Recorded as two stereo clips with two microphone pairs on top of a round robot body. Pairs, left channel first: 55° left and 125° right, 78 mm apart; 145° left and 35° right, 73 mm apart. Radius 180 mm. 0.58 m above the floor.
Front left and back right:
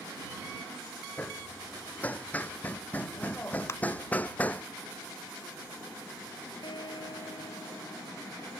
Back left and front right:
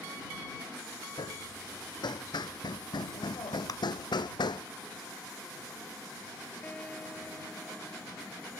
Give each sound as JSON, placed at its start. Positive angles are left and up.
{"t": 1.2, "sound": "hammering", "azimuth_deg": 125}
{"t": 3.7, "sound": "a clap", "azimuth_deg": 110}
{"t": 6.6, "sound": "a guitar", "azimuth_deg": 70}